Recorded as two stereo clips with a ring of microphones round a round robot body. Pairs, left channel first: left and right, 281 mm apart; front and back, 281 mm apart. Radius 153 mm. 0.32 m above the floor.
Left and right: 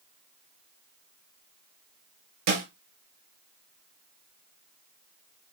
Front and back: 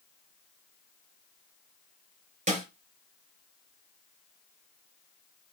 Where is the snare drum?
115° right, 5 m.